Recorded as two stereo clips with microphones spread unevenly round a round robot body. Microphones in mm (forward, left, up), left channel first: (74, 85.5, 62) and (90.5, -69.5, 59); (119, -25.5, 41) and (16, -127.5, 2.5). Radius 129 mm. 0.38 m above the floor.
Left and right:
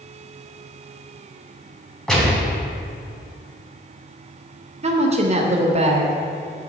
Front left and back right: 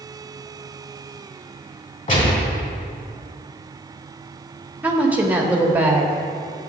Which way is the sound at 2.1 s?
10° left.